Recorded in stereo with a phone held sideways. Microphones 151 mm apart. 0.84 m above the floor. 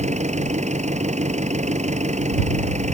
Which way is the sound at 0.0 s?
50° right (ahead or behind).